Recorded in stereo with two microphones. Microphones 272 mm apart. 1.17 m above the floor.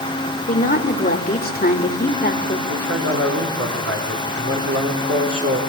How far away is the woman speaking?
About 4 m.